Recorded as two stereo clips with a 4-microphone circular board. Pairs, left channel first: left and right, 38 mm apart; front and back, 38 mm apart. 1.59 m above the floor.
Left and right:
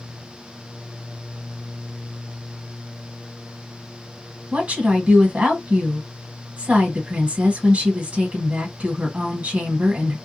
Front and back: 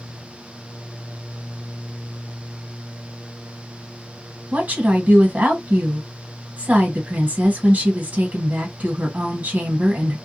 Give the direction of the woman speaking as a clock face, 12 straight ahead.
5 o'clock.